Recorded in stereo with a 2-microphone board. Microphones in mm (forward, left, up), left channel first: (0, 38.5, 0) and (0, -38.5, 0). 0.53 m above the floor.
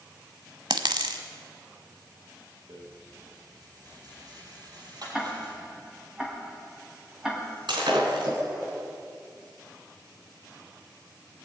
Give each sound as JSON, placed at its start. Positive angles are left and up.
{"t": 0.7, "sound": "a dropped coin", "side_deg": -80, "distance_m": 1.0}
{"t": 2.7, "sound": "a rattle", "side_deg": -60, "distance_m": 4.5}
{"t": 5.1, "sound": "ticking", "side_deg": -5, "distance_m": 2.5}
{"t": 7.7, "sound": "breaking glass", "side_deg": -85, "distance_m": 3.5}